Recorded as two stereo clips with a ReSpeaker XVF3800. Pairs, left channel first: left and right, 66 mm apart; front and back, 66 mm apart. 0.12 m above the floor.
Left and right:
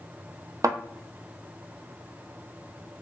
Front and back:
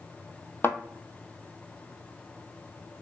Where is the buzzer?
I don't hear a buzzer.